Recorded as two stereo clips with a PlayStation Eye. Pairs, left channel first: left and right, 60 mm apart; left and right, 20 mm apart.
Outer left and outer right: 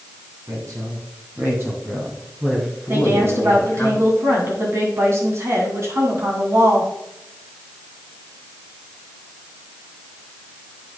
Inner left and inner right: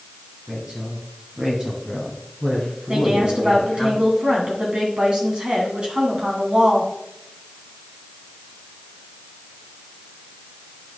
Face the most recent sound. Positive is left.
turn(degrees=-45)  # may be behind; listen again after turning